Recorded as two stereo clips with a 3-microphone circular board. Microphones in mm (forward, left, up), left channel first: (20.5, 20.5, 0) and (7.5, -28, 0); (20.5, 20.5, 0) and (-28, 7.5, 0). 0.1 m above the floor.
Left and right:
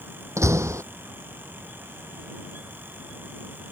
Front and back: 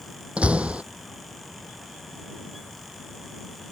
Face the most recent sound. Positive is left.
turn(degrees=-100)